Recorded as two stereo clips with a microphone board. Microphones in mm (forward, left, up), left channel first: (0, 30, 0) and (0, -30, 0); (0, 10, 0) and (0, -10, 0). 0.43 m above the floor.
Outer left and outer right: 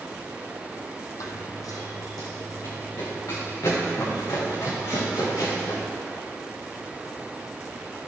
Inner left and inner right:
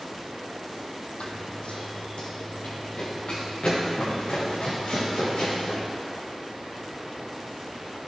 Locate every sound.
1.2 s running footsteps: 70° left (ahead or behind), 1.1 m; by 5.8 s 75° left (ahead or behind), 6 m